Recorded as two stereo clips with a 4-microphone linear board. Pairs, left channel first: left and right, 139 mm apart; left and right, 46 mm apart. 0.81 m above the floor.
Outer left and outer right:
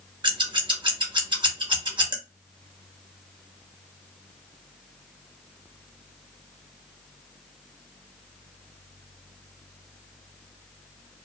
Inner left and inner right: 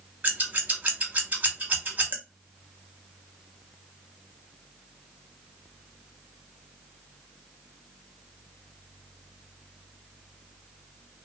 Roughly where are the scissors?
Right.